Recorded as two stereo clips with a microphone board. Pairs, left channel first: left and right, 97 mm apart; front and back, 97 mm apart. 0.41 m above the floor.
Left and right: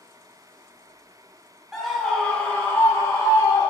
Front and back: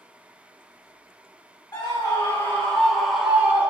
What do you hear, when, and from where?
1.7 s a scream: straight ahead, 1.2 m; by 3.7 s 115° left, 1.4 m